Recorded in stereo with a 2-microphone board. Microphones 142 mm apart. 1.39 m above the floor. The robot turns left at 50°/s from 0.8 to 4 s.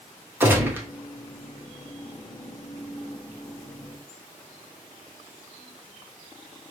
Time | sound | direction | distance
0.4 | a gunshot | 15° right (ahead or behind) | 0.8 m